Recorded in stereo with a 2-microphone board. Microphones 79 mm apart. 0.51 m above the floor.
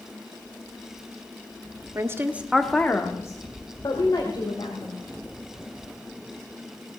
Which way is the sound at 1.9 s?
40° right (ahead or behind).